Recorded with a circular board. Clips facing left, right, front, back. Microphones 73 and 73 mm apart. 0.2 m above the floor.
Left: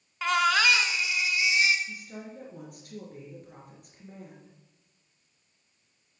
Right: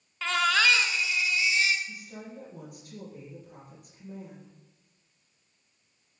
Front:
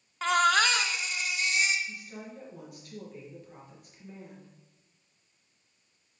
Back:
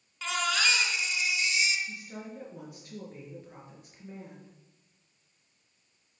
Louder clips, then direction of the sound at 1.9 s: Left 1 dB, back 1 dB; 120° left.